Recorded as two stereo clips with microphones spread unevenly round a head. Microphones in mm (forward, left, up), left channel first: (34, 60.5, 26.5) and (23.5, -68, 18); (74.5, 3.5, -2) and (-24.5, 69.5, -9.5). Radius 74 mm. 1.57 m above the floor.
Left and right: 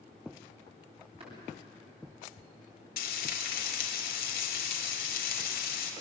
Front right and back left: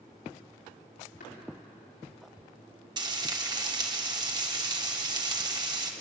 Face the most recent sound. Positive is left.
turn(degrees=95)